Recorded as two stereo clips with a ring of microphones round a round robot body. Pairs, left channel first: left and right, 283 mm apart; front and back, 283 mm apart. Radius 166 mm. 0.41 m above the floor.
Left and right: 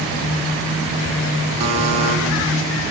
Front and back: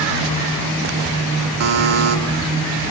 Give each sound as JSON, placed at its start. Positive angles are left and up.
{"t": 1.6, "sound": "a buzzer", "azimuth_deg": -160, "distance_m": 2.5}